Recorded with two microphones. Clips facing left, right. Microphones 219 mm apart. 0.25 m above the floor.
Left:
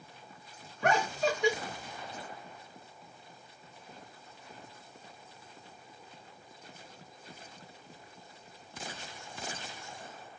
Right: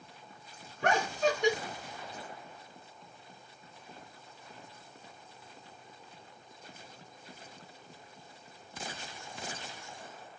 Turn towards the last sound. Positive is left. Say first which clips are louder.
# even
turn(degrees=-45)  # may be behind; listen again after turning